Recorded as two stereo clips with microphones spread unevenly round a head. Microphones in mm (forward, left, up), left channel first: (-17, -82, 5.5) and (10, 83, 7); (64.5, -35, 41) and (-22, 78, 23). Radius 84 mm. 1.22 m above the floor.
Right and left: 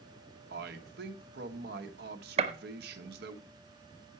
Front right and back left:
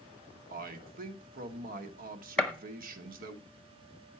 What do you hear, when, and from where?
0.5 s a man speaking: 110° left, 1.3 m
2.4 s a gunshot: 25° left, 0.9 m